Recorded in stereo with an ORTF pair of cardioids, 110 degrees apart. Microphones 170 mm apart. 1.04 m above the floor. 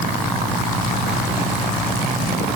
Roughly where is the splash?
I don't hear a splash.